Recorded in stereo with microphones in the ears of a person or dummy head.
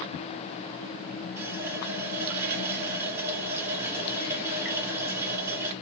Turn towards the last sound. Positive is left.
turn(degrees=-15)  # may be behind; listen again after turning